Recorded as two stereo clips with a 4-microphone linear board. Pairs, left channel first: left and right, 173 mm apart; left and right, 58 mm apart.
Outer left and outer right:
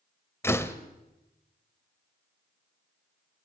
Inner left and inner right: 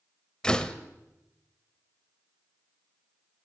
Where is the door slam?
15° left (ahead or behind), 1.4 m.